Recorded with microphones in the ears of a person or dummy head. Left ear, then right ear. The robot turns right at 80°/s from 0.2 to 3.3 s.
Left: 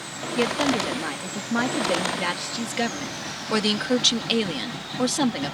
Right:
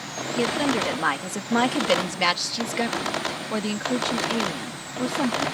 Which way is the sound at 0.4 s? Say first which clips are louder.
Left 1 dB; 160° left.